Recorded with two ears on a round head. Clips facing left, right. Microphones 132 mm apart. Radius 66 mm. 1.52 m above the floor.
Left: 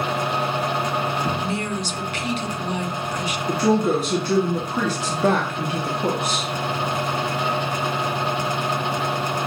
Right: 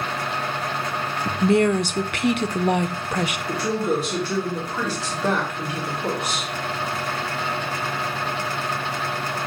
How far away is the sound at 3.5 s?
About 1.9 m.